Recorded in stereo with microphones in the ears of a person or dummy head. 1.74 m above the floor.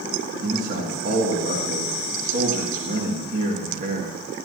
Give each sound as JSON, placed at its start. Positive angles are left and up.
{"t": 0.4, "sound": "a man speaking", "side_deg": -55, "distance_m": 2.5}